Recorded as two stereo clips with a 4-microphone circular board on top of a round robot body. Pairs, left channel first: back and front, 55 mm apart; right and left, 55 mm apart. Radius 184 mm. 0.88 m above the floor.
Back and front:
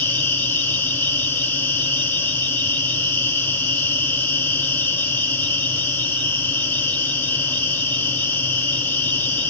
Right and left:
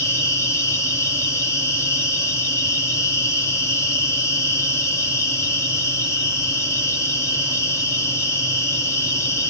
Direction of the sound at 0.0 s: 115° right.